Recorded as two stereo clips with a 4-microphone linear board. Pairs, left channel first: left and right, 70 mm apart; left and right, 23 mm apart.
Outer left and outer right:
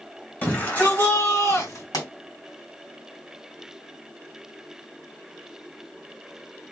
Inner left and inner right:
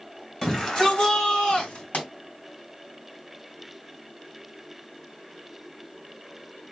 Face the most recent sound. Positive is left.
turn(degrees=65)  # may be behind; listen again after turning